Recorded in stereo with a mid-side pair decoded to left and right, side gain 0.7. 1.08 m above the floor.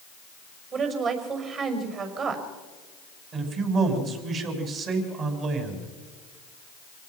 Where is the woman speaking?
40° right, 6 m.